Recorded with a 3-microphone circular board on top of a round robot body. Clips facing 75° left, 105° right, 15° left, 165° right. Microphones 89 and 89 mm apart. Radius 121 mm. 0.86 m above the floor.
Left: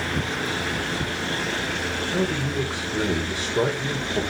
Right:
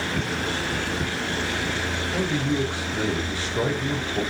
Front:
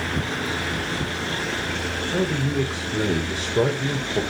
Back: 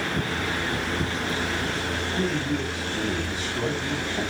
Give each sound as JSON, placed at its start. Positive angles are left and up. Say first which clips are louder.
{"t": 2.1, "sound": "a man speaking", "louder": "right 1 dB, front 4 dB", "azimuth_deg": 5, "distance_m": 3.5}